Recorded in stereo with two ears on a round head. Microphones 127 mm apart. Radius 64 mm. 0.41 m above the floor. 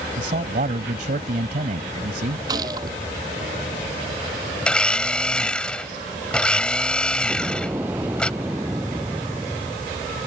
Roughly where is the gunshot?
Right.